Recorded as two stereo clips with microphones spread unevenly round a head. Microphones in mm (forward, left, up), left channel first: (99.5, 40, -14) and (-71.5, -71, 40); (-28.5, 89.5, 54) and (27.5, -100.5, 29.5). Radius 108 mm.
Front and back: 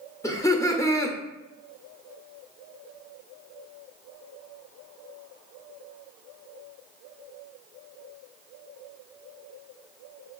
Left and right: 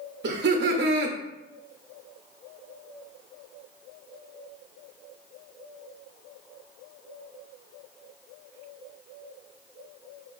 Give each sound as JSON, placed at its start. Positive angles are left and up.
{"t": 0.2, "sound": "laughter", "azimuth_deg": -40, "distance_m": 0.8}